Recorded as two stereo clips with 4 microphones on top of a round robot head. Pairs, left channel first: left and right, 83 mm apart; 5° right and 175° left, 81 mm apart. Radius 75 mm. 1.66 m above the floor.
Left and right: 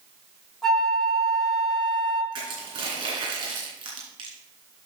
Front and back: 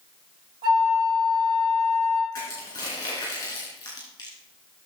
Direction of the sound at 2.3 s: 55° right.